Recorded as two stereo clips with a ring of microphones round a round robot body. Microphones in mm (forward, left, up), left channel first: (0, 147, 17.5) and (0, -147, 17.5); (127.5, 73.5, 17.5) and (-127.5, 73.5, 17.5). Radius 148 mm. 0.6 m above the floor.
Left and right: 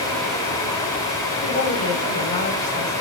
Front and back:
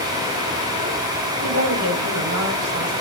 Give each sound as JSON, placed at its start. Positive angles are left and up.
{"t": 1.4, "sound": "a woman speaking", "azimuth_deg": 155, "distance_m": 4.0}